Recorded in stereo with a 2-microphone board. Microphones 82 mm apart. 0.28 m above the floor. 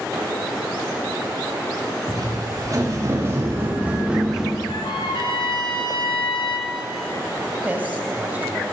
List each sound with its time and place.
2.1 s footsteps: 50° right (ahead or behind), 3 m; by 4.6 s centre (ahead or behind), 1.7 m
4.7 s a trumpet: 80° left, 1.2 m
7.6 s a man speaking: 20° right (ahead or behind), 1.5 m